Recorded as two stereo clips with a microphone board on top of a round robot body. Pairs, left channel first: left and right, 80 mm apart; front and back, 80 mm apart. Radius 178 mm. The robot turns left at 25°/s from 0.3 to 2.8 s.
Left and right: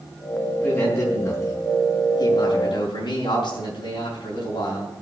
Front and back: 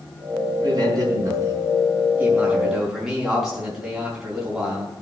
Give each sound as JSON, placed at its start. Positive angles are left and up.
{"t": 0.6, "sound": "a man speaking", "azimuth_deg": 150, "distance_m": 5.0}